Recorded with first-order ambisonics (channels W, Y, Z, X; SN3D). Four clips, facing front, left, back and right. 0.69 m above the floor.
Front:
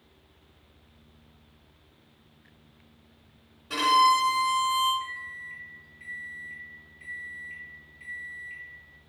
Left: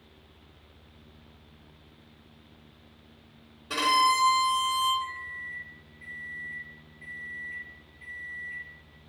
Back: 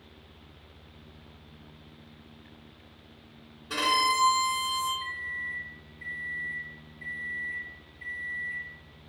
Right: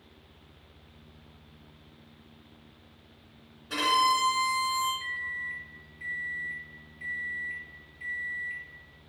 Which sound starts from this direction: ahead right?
A microwave, at 5.0 s.